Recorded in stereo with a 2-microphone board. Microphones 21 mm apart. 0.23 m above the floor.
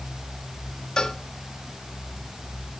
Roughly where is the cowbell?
Left.